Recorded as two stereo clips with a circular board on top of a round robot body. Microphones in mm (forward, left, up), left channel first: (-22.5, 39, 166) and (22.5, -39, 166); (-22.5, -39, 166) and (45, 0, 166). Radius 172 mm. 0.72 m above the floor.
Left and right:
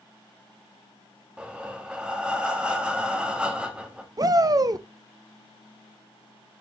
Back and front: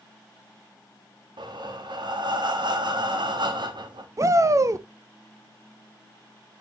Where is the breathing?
20° left, 1.5 m.